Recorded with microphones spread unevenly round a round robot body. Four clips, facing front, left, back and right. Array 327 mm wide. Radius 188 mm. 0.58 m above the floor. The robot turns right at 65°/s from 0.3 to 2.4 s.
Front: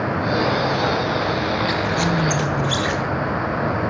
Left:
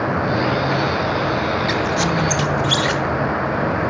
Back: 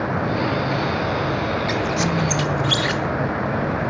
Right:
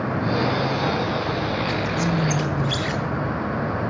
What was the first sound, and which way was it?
A squeak, 100° left.